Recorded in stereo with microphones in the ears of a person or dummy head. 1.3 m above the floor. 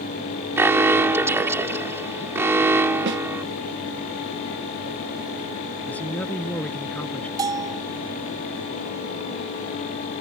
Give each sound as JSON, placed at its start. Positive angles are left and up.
{"t": 0.6, "sound": "an alarm", "side_deg": -15}
{"t": 3.1, "sound": "a snare drum", "side_deg": -60}
{"t": 5.9, "sound": "a man speaking", "side_deg": 10}
{"t": 7.4, "sound": "a bell", "side_deg": -25}